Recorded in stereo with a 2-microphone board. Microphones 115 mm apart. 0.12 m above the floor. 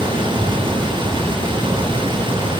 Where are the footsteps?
I don't hear footsteps.